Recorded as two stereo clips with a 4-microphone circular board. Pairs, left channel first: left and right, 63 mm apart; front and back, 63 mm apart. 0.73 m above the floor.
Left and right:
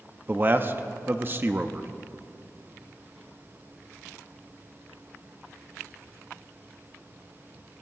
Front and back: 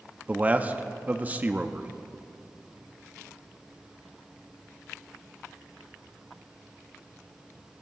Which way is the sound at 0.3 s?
130° right.